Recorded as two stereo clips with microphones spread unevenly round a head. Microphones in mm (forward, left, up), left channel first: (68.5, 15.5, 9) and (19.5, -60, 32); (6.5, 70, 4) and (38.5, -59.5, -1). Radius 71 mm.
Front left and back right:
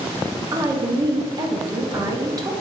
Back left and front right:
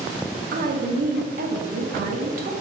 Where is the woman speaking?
70° right, 0.7 m.